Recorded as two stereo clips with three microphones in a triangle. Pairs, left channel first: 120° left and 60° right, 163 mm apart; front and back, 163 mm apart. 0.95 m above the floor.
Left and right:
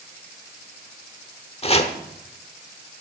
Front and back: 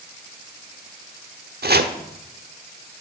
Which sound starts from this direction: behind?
Chopping, at 1.6 s.